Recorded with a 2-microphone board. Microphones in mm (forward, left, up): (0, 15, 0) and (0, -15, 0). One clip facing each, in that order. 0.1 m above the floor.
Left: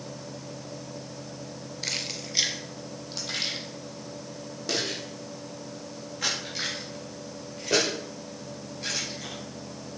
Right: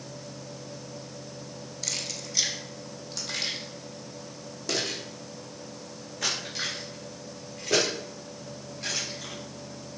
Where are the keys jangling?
25° left (ahead or behind), 1.0 m; by 9.3 s 10° left (ahead or behind), 7.5 m.